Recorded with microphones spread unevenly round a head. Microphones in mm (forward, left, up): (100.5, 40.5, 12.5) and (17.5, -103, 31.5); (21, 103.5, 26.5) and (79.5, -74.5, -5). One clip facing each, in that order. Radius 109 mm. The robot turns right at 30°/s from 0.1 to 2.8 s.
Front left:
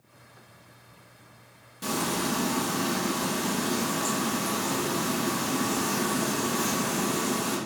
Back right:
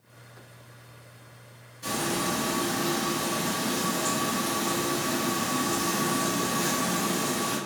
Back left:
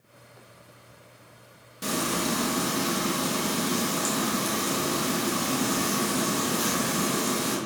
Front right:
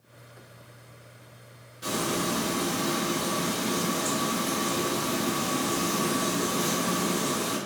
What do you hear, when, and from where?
1.8 s frying: 80° left, 0.8 m; by 7.6 s 110° left, 0.8 m